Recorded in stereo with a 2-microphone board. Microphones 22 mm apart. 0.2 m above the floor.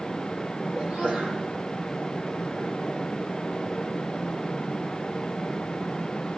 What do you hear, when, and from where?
0.8 s a sneeze: 60° right (ahead or behind), 8.5 m